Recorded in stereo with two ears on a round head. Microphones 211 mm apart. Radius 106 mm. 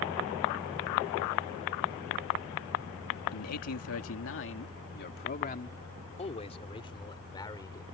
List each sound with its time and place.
3.3 s a man speaking: 80° left; by 7.8 s 15° left (ahead or behind)